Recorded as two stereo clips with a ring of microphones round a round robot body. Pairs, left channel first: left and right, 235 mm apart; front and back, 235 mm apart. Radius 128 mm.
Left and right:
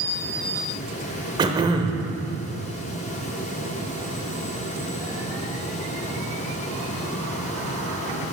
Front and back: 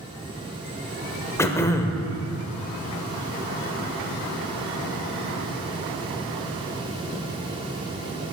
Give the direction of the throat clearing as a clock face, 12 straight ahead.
2 o'clock.